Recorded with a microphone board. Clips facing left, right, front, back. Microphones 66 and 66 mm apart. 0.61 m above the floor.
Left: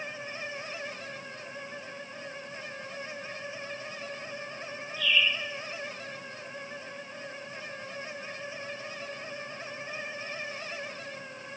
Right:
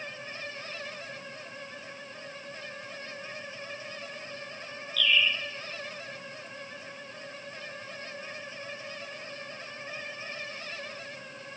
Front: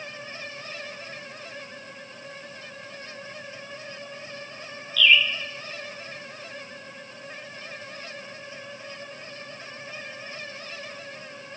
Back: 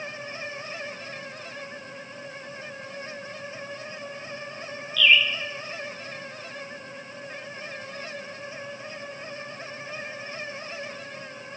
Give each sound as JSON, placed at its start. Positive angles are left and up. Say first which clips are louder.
{"t": 5.0, "sound": "a bird", "louder": "right 1 dB, even", "azimuth_deg": -100, "distance_m": 4.5}